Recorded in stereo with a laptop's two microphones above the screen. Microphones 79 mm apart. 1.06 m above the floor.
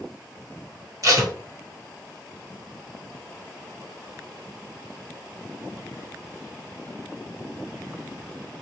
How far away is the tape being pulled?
About 1.3 m.